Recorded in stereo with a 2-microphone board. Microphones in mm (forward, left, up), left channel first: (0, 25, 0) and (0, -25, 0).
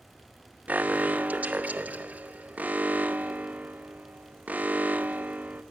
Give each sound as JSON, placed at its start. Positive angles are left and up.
{"t": 0.7, "sound": "an alarm", "side_deg": -35, "distance_m": 0.8}